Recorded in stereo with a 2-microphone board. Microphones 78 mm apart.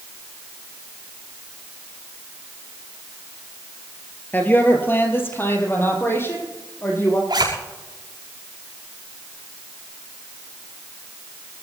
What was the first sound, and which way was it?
A woman speaking, 25° left (ahead or behind).